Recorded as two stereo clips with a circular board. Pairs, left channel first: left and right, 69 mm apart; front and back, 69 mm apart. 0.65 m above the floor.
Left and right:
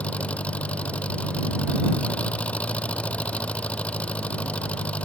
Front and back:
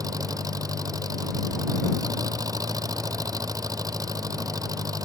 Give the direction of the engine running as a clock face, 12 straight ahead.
7 o'clock.